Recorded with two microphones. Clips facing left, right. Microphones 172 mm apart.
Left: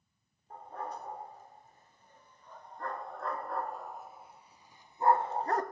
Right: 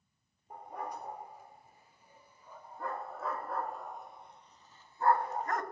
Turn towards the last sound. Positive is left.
turn(degrees=35)  # may be behind; listen again after turning